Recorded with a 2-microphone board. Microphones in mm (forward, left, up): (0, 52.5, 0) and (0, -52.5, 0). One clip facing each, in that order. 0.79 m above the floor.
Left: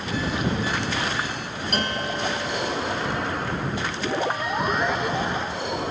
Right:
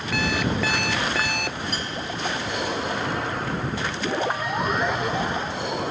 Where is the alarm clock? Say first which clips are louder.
Right 1 dB; 80° right.